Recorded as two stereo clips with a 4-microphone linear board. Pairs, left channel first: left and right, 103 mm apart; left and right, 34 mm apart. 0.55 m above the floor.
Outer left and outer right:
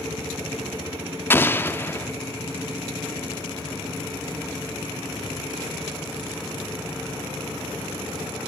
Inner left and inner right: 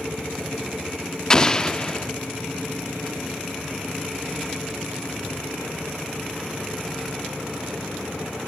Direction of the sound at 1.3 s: 20° left (ahead or behind).